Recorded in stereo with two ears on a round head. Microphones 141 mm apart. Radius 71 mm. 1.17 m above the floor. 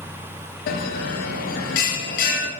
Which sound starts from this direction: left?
A bell, at 0.7 s.